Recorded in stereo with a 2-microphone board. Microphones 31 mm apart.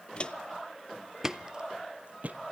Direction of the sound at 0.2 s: 35° left (ahead or behind).